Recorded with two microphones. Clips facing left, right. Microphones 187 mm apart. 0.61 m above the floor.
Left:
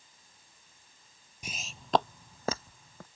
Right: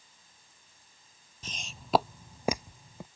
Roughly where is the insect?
I don't hear an insect.